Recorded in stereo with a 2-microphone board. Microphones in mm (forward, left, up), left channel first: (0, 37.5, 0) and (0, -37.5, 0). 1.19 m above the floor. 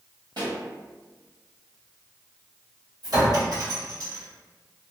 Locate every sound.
0.4 s a pop: 70° right (ahead or behind), 1.2 m
3.0 s a clink: 50° right (ahead or behind), 2.0 m